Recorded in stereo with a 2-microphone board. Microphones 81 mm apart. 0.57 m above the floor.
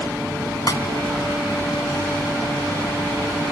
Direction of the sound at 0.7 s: 50° left (ahead or behind).